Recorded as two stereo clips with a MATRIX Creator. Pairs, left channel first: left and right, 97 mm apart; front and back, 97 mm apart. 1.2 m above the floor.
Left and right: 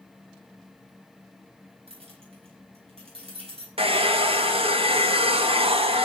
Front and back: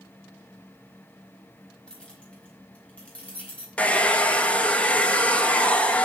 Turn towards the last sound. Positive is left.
turn(degrees=-75)